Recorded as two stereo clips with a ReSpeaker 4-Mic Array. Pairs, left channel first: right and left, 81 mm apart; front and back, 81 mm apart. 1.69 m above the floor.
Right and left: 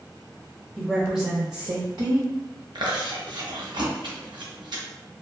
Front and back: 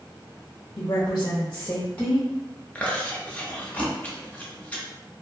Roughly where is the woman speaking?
Ahead.